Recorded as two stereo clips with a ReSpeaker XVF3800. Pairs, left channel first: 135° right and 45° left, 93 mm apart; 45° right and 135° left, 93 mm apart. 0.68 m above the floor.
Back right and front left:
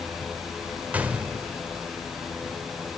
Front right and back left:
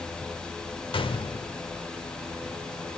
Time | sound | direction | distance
0.9 | a gunshot | 30° right | 1.1 m